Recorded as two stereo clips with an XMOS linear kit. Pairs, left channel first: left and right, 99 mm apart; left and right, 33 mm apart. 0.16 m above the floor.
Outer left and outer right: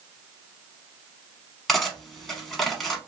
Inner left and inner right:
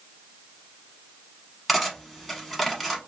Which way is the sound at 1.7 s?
5° left (ahead or behind).